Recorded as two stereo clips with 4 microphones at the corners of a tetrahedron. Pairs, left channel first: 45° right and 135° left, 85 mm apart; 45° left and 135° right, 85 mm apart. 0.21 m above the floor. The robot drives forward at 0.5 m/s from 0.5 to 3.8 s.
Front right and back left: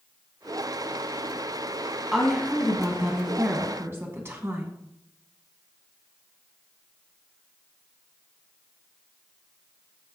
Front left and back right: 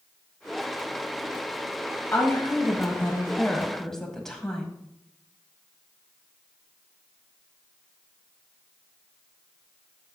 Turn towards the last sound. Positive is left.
turn(degrees=125)